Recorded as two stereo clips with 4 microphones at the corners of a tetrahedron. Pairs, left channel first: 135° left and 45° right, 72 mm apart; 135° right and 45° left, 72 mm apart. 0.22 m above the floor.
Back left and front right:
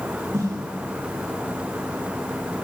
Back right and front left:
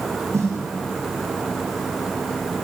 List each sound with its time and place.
0.3 s a snare drum: straight ahead, 9.5 m